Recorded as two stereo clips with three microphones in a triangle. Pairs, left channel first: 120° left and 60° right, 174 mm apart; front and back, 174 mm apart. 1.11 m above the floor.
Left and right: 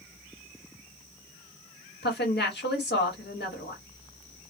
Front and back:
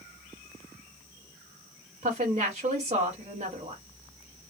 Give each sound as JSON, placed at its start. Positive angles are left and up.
{"t": 2.0, "sound": "a woman speaking", "azimuth_deg": 130, "distance_m": 1.5}